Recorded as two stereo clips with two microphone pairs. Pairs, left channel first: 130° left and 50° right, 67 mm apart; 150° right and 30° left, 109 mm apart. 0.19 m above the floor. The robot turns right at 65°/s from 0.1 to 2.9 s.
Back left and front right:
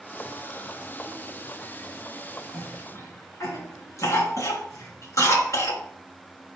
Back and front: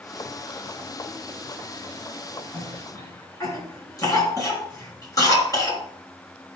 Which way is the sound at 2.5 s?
135° left.